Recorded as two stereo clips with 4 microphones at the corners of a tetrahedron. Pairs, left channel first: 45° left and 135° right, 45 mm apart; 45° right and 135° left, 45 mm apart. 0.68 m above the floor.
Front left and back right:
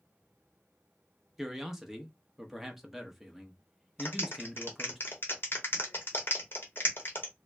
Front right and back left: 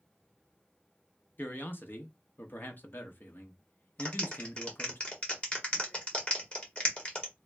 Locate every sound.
1.4 s a man speaking: 55° right, 0.8 m
4.0 s a clap: 15° left, 1.3 m